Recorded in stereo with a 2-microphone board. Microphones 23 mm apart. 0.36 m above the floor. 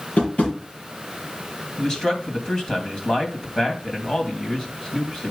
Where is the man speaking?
30° left (ahead or behind), 2.5 m.